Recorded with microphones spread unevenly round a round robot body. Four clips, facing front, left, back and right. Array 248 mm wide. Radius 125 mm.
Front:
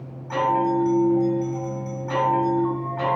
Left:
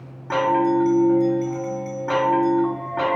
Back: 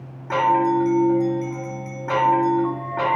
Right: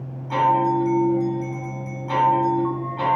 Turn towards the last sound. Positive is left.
turn(degrees=125)